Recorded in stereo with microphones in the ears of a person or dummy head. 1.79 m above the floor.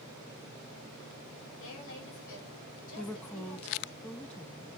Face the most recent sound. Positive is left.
turn(degrees=10)  # may be behind; listen again after turning